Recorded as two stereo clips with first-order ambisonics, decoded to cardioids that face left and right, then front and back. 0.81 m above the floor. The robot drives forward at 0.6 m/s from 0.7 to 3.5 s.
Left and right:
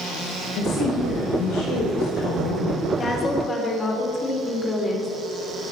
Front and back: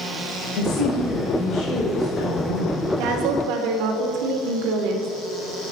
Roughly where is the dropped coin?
No dropped coin in this recording.